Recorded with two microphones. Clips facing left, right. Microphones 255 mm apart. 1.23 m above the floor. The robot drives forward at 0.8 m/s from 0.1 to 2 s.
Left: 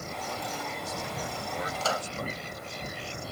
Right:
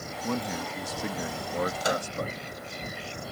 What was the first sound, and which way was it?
A man speaking, 80° right.